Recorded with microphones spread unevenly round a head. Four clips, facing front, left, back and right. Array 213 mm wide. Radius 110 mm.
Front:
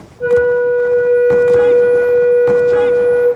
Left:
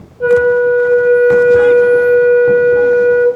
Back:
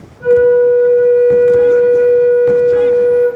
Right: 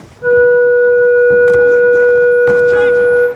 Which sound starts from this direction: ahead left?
A flute, at 0.2 s.